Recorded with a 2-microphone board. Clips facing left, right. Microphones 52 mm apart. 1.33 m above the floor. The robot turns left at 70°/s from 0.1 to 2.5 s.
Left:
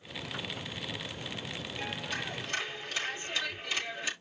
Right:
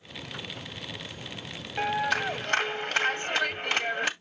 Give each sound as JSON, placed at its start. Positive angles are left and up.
{"t": 1.8, "sound": "a clap", "azimuth_deg": -65, "distance_m": 1.6}